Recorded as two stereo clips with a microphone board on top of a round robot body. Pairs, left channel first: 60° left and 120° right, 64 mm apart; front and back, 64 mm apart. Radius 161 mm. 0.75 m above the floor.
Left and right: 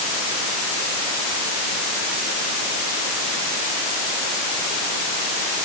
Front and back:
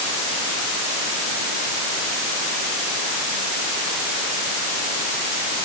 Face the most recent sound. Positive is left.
No sound to turn to.